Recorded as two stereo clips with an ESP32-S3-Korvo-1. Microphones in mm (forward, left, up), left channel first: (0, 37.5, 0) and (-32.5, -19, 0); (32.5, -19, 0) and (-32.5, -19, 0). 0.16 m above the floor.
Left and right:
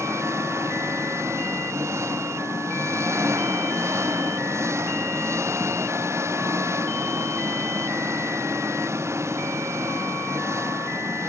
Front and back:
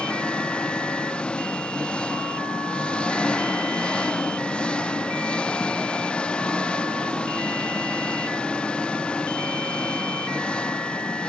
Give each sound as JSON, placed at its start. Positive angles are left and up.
{"t": 0.0, "sound": "an engine running", "azimuth_deg": -75}